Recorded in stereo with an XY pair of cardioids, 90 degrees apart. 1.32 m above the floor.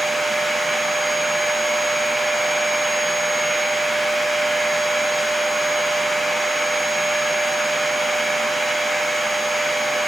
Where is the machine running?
Straight ahead, 0.9 m.